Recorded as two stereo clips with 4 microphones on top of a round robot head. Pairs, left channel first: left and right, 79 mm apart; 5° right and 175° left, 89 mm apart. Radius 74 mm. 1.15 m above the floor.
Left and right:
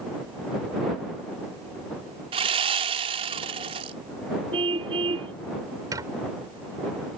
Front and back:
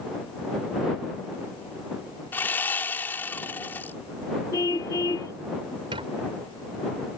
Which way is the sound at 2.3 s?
80° right.